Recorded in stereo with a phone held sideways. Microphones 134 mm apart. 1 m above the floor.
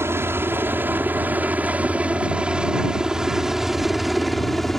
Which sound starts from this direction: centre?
A helicopter, at 0.0 s.